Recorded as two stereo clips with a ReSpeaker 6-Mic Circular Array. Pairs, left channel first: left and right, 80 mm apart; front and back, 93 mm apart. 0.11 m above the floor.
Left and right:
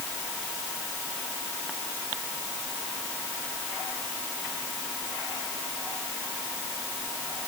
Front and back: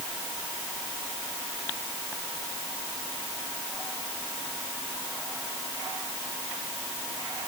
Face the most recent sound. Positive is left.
No sound to turn to.